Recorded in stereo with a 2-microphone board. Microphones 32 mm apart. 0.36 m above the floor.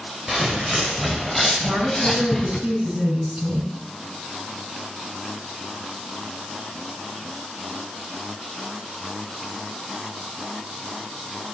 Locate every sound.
0.3 s footsteps: 15° right (ahead or behind), 4.5 m; by 2.6 s 15° left (ahead or behind), 2 m
1.6 s a woman speaking: 40° right (ahead or behind), 5 m